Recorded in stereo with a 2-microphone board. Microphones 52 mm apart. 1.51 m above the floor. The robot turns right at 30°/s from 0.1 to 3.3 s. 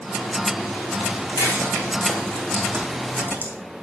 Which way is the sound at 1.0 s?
70° right (ahead or behind).